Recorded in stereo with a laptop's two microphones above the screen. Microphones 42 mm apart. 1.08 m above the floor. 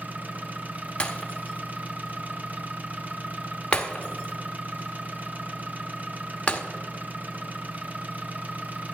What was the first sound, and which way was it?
An engine running, 35° right (ahead or behind).